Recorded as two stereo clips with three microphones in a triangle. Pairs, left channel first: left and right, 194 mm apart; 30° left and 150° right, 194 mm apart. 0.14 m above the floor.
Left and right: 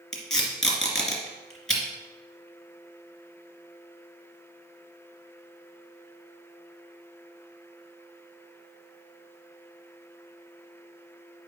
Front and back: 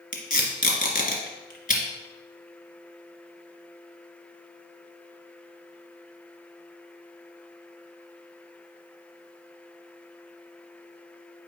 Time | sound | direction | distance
0.1 | tape being pulled | 5° left | 2.0 m